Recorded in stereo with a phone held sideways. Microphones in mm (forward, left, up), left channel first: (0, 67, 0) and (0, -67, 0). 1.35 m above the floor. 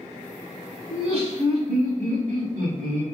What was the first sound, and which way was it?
Laughter, 45° right (ahead or behind).